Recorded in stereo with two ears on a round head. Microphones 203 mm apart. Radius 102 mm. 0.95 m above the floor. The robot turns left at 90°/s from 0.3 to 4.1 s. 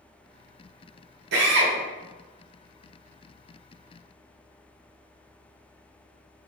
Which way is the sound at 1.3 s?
65° right.